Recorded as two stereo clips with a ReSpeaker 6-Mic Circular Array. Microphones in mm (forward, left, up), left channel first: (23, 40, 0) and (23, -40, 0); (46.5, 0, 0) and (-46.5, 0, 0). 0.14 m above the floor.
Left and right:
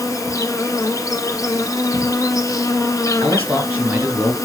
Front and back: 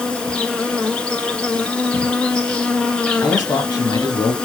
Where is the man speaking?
25° right, 3 m.